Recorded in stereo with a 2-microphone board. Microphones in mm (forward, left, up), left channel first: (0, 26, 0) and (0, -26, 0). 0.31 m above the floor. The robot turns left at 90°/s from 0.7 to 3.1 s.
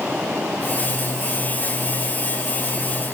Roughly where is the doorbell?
No doorbell in this recording.